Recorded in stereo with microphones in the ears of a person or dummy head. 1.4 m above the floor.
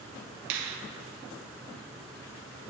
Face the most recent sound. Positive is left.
turn(degrees=-65)  # may be behind; listen again after turning